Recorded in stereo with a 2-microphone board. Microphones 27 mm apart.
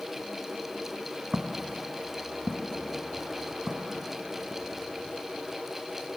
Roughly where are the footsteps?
Right.